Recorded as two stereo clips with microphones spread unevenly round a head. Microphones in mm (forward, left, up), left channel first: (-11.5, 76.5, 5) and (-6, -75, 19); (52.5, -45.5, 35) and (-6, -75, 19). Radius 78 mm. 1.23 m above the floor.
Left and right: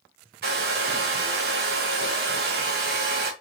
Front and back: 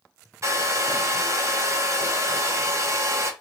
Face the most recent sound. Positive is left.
turn(degrees=-110)